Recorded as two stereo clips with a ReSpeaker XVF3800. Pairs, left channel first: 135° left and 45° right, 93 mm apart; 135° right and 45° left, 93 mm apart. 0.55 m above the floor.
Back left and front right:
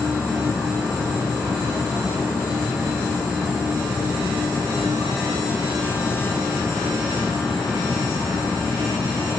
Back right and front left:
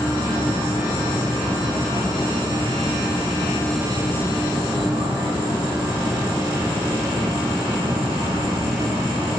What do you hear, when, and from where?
0.0 s an insect: 35° left, 6 m